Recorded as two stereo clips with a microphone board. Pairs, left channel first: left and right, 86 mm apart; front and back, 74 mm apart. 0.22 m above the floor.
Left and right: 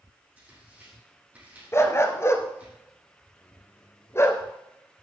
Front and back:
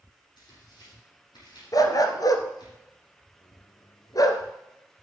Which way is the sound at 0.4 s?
20° right.